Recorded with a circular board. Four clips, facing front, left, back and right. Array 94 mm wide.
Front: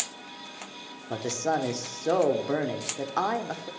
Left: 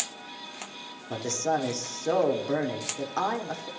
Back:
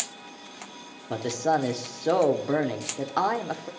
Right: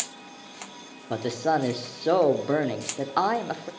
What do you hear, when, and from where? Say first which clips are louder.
1.1 s a man speaking: right 3 dB, back 3 dB; 110° right, 0.9 m